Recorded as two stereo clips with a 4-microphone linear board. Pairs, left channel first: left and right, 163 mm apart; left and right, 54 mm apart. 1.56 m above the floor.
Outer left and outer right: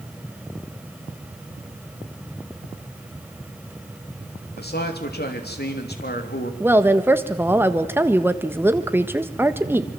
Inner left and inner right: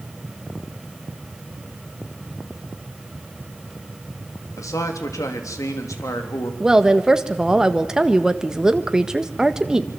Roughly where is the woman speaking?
Centre.